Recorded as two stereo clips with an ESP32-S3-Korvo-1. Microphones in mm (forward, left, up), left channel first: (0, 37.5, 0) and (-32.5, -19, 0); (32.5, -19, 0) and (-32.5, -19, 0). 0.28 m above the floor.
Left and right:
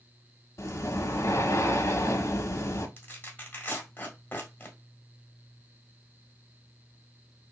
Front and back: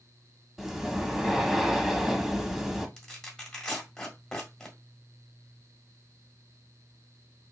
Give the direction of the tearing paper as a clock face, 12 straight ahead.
10 o'clock.